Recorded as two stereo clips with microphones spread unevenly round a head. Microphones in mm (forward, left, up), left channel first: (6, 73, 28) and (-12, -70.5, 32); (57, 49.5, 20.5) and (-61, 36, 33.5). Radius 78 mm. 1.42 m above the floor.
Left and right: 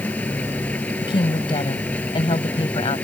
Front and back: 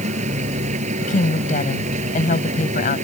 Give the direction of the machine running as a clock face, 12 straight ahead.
7 o'clock.